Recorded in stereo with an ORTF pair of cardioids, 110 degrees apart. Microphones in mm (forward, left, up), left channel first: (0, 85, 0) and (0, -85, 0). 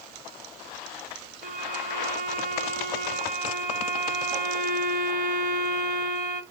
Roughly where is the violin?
Ahead right.